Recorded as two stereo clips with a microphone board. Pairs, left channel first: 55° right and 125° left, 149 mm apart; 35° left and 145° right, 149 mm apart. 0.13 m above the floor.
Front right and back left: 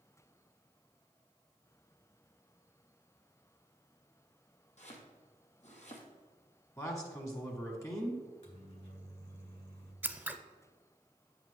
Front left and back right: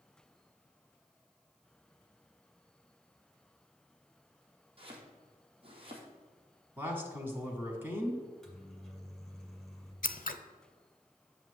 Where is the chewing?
I don't hear chewing.